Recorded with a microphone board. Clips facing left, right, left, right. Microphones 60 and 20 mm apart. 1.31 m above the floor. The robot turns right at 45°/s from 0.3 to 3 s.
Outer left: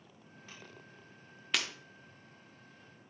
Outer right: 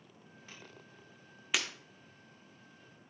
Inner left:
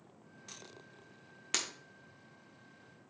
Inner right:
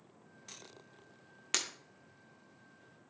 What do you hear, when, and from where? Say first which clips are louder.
1.5 s breaking glass: even, inner right 1 dB; 5° right (ahead or behind), 1.0 m; by 1.7 s centre (ahead or behind), 1.0 m